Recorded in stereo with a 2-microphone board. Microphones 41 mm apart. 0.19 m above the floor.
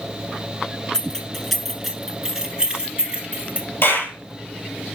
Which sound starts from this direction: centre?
Keys jangling, at 0.9 s.